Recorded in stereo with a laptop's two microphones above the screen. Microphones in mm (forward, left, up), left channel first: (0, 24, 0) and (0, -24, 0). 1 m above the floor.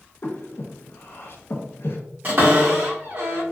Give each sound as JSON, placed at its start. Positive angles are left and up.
{"t": 0.2, "sound": "breathing", "side_deg": 50, "distance_m": 0.6}
{"t": 2.2, "sound": "a cupboard door", "side_deg": -40, "distance_m": 1.9}